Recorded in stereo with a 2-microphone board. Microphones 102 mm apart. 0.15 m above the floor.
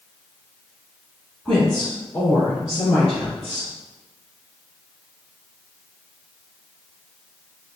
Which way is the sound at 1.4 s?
5° left (ahead or behind).